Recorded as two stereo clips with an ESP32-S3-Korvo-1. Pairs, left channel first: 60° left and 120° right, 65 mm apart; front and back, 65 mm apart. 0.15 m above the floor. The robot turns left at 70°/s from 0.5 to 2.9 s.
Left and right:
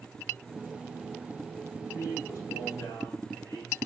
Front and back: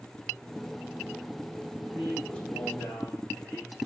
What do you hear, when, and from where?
1.9 s a man speaking: 100° left, 7.5 m; by 3.8 s 30° left, 7.5 m